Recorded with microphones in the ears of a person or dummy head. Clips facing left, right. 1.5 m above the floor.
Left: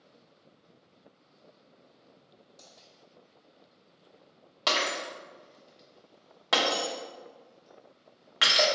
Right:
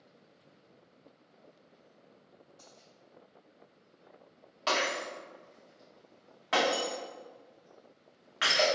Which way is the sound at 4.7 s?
55° left (ahead or behind).